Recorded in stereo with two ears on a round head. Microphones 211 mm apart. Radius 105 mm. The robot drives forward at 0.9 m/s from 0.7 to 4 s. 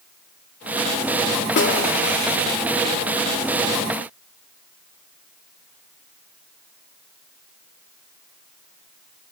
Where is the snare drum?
50° left (ahead or behind), 2 m; by 1.9 s 45° left (ahead or behind), 2 m.